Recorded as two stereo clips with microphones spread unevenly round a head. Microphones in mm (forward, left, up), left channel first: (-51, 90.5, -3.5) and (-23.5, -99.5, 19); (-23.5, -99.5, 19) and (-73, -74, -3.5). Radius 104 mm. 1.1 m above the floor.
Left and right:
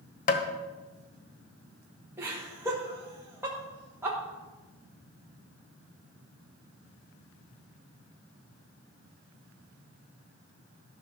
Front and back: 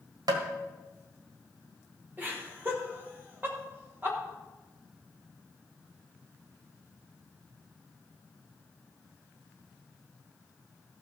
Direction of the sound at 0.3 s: 140° left.